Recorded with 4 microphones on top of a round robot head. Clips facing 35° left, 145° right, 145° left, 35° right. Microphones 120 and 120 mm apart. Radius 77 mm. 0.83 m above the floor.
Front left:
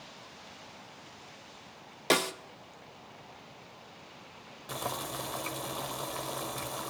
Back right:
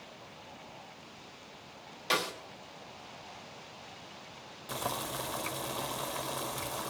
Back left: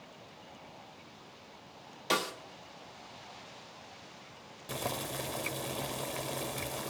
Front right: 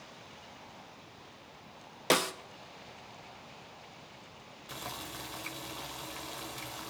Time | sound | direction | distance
2.1 | a snare drum | straight ahead | 1.0 m
4.7 | boiling | 130° left | 0.6 m